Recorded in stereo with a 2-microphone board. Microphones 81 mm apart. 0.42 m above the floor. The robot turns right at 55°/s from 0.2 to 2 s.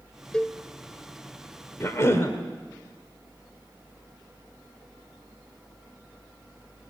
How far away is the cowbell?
About 0.6 m.